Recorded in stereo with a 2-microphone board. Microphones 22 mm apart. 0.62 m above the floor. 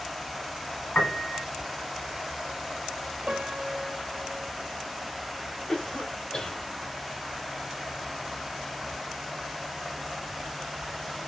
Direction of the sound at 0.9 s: 60° left (ahead or behind).